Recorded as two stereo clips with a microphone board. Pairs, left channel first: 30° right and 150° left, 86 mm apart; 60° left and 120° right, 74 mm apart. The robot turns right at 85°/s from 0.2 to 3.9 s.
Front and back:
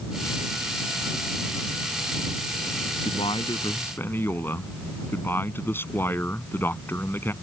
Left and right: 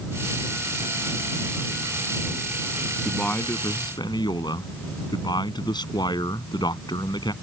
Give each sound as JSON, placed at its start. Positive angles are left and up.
{"t": 3.0, "sound": "a man speaking", "azimuth_deg": -35}